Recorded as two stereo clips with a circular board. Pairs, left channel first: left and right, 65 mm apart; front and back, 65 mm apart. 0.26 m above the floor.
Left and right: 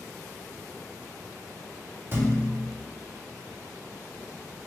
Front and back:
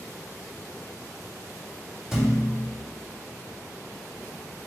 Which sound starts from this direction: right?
A thud, at 2.1 s.